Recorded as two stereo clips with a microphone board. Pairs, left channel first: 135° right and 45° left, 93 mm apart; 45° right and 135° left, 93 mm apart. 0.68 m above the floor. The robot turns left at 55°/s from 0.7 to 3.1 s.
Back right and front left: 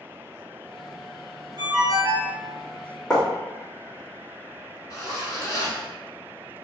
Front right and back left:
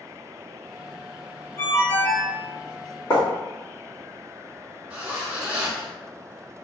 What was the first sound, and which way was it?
A ringtone, 20° left.